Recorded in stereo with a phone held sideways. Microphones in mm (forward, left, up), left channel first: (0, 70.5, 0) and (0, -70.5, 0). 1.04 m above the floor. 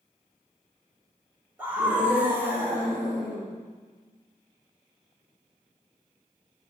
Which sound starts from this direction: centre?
A scream, at 1.6 s.